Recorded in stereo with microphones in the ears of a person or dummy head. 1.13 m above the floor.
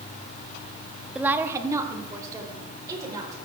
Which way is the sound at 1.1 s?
5° right (ahead or behind).